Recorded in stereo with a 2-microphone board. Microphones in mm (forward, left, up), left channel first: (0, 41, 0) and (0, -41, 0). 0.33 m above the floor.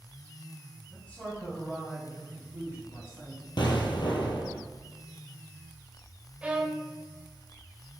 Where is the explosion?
70° left (ahead or behind), 1.5 m.